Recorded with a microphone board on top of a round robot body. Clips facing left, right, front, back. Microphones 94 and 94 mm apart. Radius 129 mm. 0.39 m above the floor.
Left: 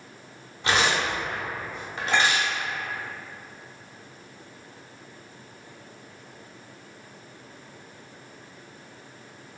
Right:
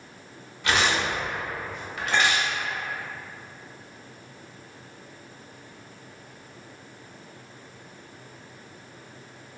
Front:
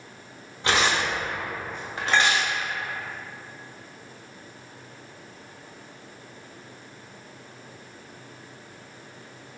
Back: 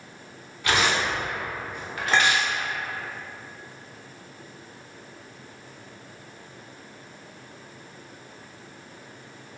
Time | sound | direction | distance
0.6 | tearing paper | 45° left | 1.2 m
2.1 | a clink | 95° left | 1.9 m